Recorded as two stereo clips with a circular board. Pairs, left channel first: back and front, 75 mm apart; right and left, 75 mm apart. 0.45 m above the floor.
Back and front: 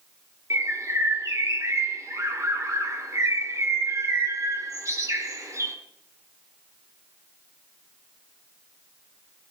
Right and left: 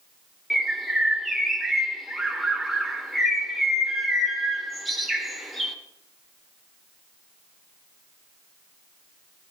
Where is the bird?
Straight ahead, 1.0 m.